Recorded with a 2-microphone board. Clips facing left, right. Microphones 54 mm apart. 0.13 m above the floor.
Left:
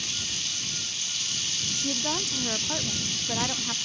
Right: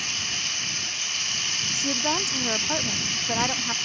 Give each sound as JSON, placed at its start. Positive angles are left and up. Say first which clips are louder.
{"t": 0.0, "sound": "running water", "louder": "right 5 dB", "side_deg": -50}
{"t": 1.7, "sound": "a woman speaking", "louder": "right 4 dB", "side_deg": -25}